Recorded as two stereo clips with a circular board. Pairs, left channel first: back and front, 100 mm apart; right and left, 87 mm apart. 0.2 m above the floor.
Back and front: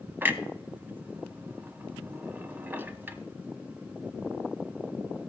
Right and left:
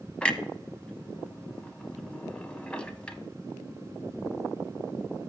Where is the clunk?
35° right, 0.5 m.